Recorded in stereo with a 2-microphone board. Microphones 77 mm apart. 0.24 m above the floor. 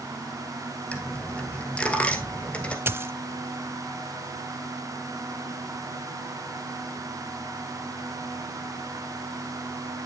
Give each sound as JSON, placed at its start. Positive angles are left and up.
{"t": 0.9, "sound": "a dropped coin", "side_deg": 15, "distance_m": 1.7}
{"t": 2.9, "sound": "a dropped coin", "side_deg": -30, "distance_m": 0.5}